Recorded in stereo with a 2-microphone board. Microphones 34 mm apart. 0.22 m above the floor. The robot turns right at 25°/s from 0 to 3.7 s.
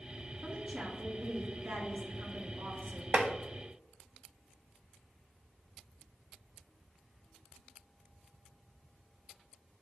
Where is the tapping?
35° right (ahead or behind), 0.7 m.